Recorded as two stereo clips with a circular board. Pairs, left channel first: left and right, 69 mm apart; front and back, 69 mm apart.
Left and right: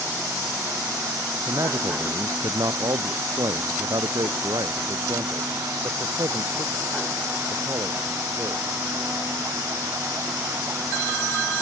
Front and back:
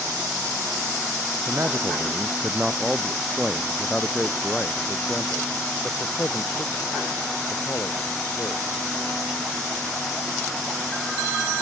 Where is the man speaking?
125° right; by 8.6 s 45° right.